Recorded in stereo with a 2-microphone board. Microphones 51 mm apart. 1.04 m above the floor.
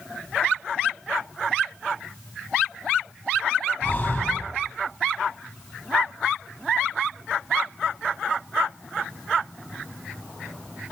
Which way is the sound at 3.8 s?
30° left (ahead or behind).